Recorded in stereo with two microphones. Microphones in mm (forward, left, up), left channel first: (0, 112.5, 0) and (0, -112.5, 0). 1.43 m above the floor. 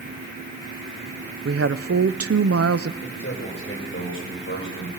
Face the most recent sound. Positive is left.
turn(degrees=65)  # may be behind; listen again after turning